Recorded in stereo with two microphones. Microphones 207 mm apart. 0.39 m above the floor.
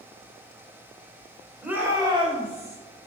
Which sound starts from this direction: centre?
A shout, at 1.6 s.